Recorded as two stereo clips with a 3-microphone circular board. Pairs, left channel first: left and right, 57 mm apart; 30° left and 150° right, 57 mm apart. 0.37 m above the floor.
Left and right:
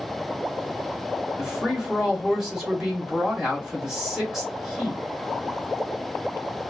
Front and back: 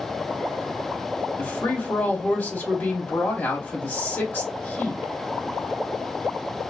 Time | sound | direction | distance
1.4 | a woman speaking | 10° right | 1.8 m